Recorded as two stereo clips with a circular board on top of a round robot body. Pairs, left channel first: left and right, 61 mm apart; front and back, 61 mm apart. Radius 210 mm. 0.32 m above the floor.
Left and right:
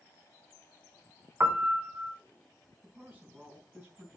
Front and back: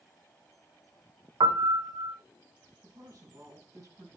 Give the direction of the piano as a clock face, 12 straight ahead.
5 o'clock.